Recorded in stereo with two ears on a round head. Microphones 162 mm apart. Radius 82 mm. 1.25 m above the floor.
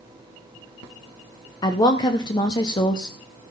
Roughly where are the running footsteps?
I don't hear running footsteps.